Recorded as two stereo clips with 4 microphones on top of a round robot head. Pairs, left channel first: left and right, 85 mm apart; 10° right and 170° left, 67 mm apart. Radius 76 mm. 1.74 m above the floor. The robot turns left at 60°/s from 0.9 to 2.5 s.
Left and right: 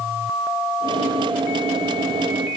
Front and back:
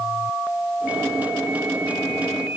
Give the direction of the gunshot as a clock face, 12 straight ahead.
No gunshot in this recording.